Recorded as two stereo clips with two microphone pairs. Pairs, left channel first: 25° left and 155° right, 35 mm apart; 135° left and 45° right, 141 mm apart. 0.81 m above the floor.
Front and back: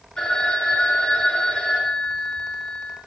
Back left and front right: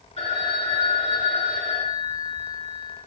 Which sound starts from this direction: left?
A phone ringing, at 0.2 s.